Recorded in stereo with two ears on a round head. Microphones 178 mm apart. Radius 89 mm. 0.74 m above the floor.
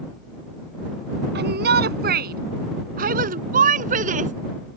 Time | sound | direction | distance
1.4 | a shout | 55° right (ahead or behind) | ?